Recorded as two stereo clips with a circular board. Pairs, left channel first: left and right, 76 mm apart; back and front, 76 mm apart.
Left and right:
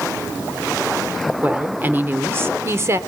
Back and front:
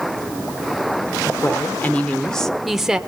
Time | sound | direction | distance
1.4 | a woman speaking | 145° right | 1.3 m